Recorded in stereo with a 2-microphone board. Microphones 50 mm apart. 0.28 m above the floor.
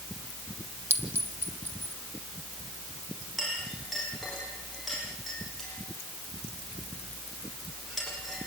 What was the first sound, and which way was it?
A clink, 55° right (ahead or behind).